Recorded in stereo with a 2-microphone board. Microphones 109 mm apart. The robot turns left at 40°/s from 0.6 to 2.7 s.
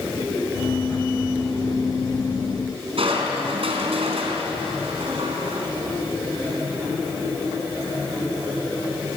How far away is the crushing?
About 4 m.